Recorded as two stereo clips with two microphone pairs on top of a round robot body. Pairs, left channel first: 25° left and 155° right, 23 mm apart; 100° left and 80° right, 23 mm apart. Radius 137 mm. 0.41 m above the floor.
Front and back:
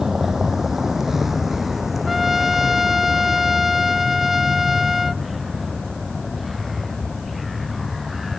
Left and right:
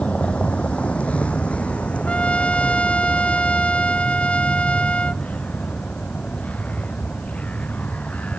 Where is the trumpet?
125° left.